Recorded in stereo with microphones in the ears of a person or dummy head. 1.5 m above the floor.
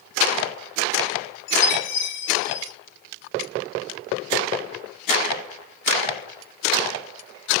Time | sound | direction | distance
1.5 | a chime | 70° left (ahead or behind) | 6.5 m